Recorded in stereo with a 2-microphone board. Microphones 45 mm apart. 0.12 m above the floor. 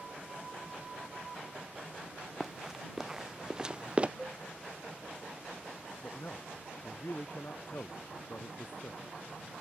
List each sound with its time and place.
2.4 s running footsteps: 5° right (ahead or behind); by 4.1 s 30° right (ahead or behind)
4.2 s a cowbell: 5° right (ahead or behind)
6.0 s a man speaking: 50° left (ahead or behind)